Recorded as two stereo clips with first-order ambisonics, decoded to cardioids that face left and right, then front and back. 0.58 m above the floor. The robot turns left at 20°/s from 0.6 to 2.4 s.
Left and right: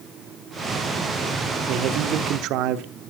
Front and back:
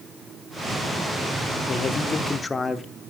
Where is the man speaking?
65° right, 1.2 m; by 2.9 s 75° right, 1.2 m.